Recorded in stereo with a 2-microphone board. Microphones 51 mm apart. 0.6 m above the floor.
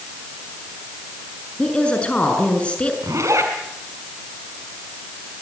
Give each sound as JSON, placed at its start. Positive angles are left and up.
{"t": 1.6, "sound": "a woman speaking", "side_deg": 25, "distance_m": 6.5}
{"t": 3.0, "sound": "a zipper", "side_deg": -70, "distance_m": 5.0}